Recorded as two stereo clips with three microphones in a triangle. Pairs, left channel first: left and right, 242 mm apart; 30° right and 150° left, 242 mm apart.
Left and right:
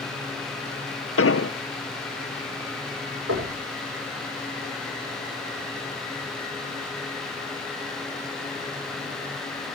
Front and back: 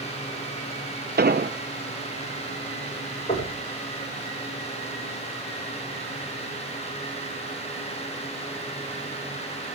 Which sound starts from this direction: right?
Knocking, at 3.3 s.